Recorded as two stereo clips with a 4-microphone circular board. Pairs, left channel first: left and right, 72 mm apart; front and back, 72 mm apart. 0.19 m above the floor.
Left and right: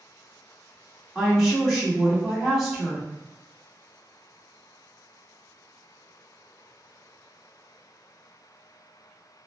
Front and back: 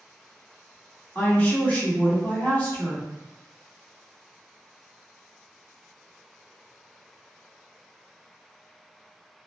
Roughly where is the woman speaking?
Ahead.